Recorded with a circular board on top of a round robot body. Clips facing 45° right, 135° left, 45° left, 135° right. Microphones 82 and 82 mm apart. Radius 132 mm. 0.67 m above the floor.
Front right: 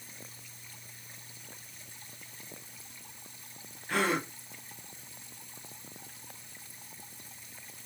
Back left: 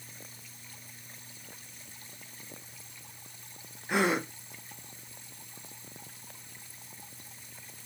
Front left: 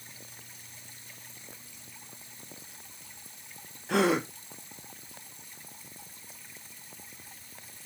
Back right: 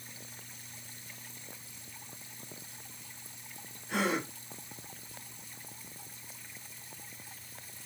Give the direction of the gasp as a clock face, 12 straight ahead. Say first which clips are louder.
Back left 2 dB, front left 6 dB; 10 o'clock.